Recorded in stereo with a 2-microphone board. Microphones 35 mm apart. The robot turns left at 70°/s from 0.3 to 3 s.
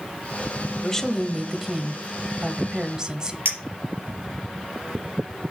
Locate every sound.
0.8 s a woman speaking: 15° left (ahead or behind), 0.9 m; by 3.4 s 25° right (ahead or behind), 0.9 m
3.5 s a clink: 80° right, 3.5 m